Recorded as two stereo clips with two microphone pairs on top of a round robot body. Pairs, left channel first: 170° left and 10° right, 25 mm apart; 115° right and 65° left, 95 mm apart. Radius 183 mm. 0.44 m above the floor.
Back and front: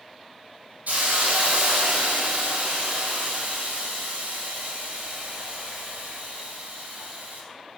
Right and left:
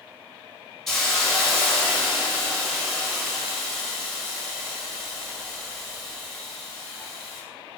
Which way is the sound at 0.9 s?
30° right.